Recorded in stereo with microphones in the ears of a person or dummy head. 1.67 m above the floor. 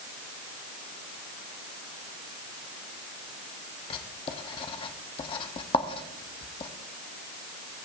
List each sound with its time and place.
3.9 s writing: 30° left (ahead or behind), 0.9 m